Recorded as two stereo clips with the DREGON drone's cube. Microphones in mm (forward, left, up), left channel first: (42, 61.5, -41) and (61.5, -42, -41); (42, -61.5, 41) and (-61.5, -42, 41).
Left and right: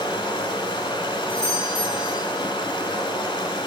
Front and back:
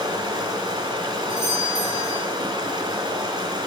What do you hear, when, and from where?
0.0 s running water: 140° left, 2.5 m
1.3 s a doorbell: 140° right, 5.5 m